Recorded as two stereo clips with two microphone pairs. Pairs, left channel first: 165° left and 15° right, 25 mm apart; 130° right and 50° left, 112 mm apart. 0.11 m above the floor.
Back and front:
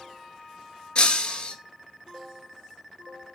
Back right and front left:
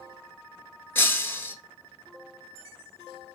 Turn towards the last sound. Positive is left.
turn(degrees=170)